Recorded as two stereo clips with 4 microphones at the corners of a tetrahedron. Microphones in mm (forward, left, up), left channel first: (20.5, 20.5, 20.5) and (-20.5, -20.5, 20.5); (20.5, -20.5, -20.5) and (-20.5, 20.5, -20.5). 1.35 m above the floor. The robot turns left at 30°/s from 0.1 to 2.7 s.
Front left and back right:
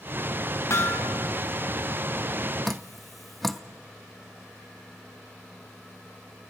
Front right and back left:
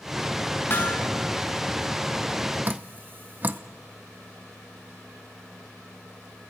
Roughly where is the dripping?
Behind left.